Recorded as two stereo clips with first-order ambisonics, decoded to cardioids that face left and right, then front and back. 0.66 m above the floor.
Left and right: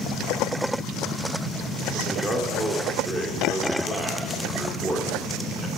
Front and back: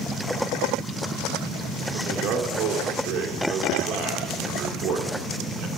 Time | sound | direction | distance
1.9 | a man speaking | 150° right | 1.9 m